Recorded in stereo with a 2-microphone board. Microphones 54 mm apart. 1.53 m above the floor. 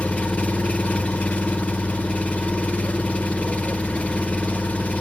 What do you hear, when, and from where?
0.0 s an engine running: 25° left (ahead or behind), 0.8 m